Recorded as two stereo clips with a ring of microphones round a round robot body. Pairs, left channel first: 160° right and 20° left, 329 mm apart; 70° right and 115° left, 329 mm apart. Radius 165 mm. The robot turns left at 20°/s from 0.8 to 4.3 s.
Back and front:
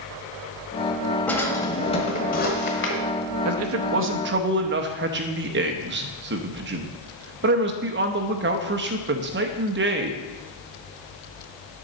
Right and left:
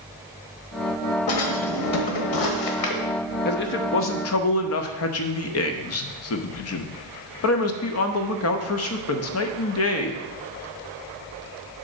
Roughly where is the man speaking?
Ahead.